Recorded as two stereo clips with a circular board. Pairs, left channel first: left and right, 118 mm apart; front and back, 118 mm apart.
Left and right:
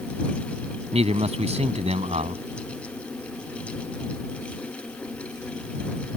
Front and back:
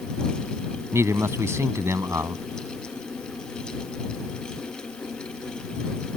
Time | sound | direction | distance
0.9 | a man speaking | 115° right | ?